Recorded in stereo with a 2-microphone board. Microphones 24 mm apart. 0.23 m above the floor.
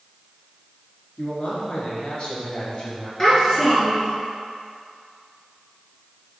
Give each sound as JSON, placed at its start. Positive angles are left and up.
{"t": 1.2, "sound": "a man speaking", "side_deg": 55, "distance_m": 2.5}
{"t": 3.2, "sound": "a child speaking", "side_deg": 20, "distance_m": 2.5}